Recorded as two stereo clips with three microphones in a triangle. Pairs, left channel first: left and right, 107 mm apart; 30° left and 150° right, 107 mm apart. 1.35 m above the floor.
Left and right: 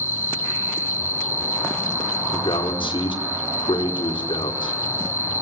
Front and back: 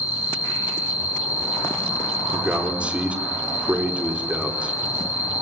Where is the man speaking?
130° left, 4.5 m.